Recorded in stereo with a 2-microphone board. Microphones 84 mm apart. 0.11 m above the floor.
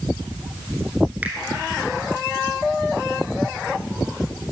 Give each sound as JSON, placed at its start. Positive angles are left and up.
{"t": 1.2, "sound": "a finger snap", "side_deg": -20, "distance_m": 1.2}